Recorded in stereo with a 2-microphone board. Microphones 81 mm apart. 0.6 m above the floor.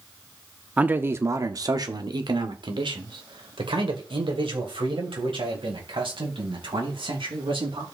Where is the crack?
No crack in this recording.